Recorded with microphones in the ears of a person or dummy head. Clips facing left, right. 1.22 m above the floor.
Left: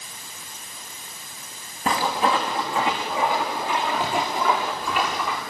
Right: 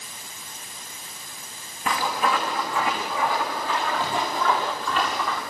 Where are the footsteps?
35° left (ahead or behind), 6.5 m; by 5.4 s 10° left (ahead or behind), 8 m.